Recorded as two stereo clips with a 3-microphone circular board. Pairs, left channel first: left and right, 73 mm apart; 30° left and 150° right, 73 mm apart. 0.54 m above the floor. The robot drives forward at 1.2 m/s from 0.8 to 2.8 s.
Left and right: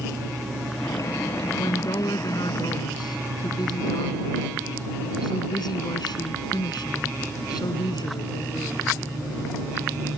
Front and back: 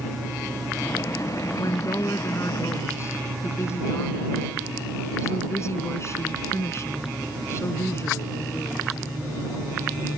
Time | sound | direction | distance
1.6 | a woman speaking | 70° left | ?